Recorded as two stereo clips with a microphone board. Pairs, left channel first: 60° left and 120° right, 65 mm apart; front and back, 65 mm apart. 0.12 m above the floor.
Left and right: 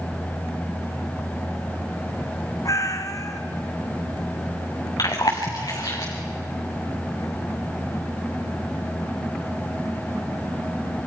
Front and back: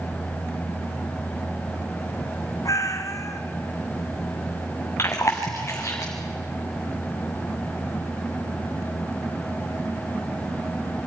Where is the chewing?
50° left, 4 m.